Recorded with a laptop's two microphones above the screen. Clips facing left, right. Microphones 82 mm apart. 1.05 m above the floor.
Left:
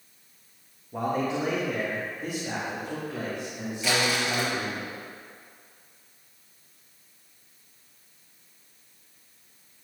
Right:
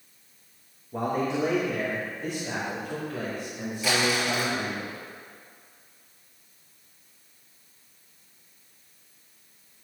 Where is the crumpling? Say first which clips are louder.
Right 1 dB; centre (ahead or behind), 3 m.